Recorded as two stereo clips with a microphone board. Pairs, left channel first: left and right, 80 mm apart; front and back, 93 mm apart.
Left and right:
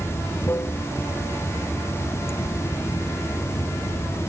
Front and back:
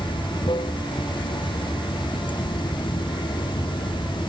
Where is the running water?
30° left.